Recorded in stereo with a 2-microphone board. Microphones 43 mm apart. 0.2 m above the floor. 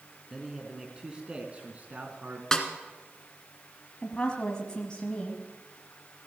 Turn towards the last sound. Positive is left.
turn(degrees=20)  # may be behind; listen again after turning